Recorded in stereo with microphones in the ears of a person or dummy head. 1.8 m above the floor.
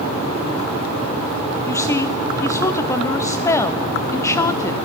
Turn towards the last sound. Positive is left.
turn(degrees=20)  # may be behind; listen again after turning